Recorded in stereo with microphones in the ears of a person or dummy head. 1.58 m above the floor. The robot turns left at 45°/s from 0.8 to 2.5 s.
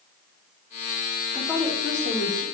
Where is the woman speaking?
175° left, 4 m; by 2.4 s 125° left, 4 m.